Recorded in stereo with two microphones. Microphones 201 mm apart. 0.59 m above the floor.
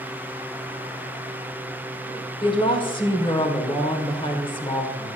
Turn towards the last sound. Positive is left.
turn(degrees=25)  # may be behind; listen again after turning